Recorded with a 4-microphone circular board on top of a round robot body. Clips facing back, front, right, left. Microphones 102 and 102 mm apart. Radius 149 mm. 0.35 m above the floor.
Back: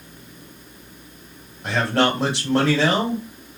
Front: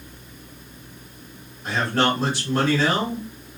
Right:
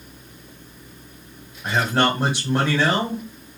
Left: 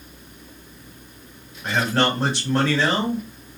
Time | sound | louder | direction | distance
1.6 | a man speaking | back 2 dB, right 1 dB | 170° right | 2 m